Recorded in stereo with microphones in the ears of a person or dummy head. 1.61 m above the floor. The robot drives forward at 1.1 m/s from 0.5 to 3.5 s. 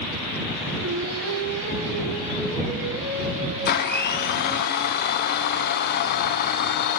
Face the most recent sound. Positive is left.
turn(degrees=60)  # may be behind; listen again after turning